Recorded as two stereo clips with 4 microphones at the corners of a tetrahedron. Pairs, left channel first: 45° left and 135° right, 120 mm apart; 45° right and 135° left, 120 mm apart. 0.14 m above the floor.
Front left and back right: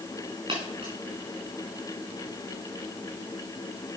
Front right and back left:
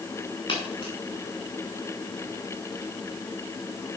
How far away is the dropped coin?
About 5 m.